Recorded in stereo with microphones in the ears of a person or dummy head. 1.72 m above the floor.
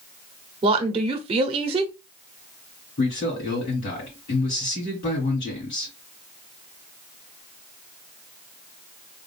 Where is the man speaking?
50° left (ahead or behind), 2.5 m.